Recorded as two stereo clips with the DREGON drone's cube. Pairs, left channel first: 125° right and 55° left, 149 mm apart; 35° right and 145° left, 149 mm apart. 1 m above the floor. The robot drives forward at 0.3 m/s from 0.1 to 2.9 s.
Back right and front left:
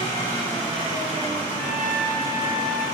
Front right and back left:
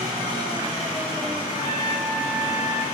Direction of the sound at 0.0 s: Straight behind.